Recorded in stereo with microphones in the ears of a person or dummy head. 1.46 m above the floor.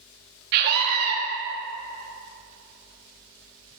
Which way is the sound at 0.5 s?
60° right (ahead or behind).